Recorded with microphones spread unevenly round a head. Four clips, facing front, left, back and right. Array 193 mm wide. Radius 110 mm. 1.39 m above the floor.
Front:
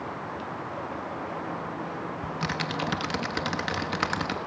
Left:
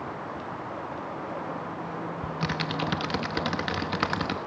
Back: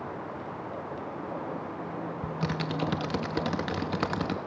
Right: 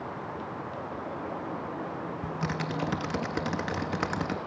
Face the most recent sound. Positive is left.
turn(degrees=-170)